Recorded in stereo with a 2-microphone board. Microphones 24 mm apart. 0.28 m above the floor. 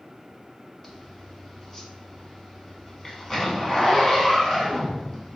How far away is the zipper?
About 0.8 m.